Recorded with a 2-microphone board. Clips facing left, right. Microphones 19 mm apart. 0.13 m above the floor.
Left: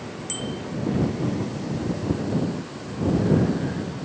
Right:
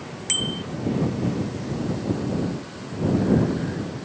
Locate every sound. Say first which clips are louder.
0.3 s a bicycle bell: right 7 dB; 40° right (ahead or behind)